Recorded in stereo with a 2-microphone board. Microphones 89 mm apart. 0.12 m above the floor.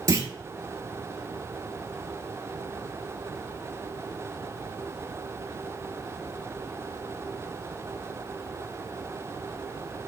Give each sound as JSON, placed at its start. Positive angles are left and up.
{"t": 0.1, "sound": "a clunk", "side_deg": -40, "distance_m": 0.5}